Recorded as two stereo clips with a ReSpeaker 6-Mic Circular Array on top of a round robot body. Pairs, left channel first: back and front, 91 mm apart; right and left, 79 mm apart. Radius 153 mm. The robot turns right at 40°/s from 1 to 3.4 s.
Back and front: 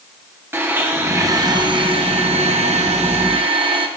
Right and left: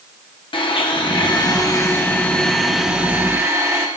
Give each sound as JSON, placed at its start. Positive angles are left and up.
{"t": 0.5, "sound": "a blender", "azimuth_deg": -65, "distance_m": 1.1}